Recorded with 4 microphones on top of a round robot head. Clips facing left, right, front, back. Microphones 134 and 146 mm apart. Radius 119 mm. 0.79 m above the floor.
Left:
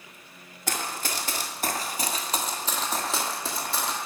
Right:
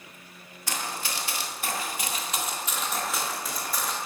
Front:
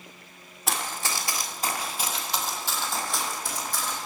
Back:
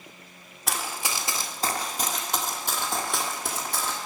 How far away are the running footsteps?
About 0.9 m.